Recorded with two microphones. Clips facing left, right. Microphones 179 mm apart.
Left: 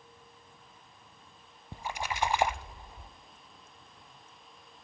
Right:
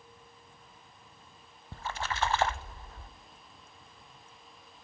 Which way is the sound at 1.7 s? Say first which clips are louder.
Even; 15° left (ahead or behind).